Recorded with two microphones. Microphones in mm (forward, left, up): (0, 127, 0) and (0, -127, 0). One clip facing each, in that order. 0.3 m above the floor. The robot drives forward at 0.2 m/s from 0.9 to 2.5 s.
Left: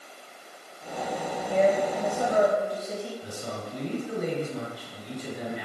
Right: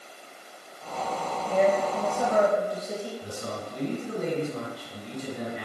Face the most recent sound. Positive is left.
turn(degrees=-45)  # may be behind; listen again after turning